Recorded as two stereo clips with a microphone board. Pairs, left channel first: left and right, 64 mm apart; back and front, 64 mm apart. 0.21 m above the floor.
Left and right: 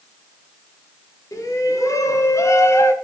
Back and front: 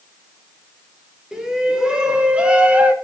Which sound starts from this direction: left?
A shout, at 1.3 s.